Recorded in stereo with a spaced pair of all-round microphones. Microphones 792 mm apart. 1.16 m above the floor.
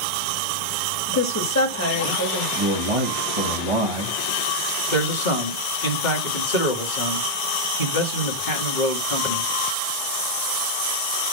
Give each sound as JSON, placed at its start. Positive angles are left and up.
{"t": 1.1, "sound": "a woman speaking", "side_deg": 20, "distance_m": 2.0}
{"t": 2.6, "sound": "a man speaking", "side_deg": -40, "distance_m": 1.7}
{"t": 4.9, "sound": "a man speaking", "side_deg": 70, "distance_m": 1.9}